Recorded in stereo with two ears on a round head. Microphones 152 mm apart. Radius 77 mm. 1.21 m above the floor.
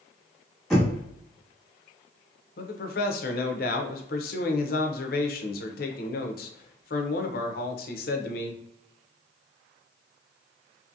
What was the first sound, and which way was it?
Knocking, 5° left (ahead or behind).